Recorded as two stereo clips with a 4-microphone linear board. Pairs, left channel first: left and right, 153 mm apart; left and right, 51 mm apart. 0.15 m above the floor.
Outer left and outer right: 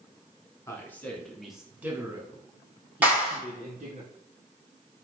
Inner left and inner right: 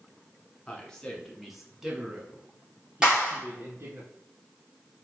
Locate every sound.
0.7 s a man speaking: 15° left (ahead or behind), 1.5 m; by 4.0 s 50° right (ahead or behind), 1.9 m
3.0 s a clap: 10° right (ahead or behind), 2.5 m